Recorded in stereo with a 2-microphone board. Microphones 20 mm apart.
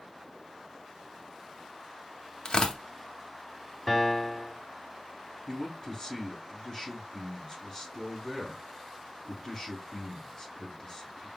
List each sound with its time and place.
2.5 s tearing paper: 45° left (ahead or behind), 0.7 m
3.9 s a piano: 20° left (ahead or behind), 1.0 m
5.5 s a man speaking: 30° left (ahead or behind), 3.5 m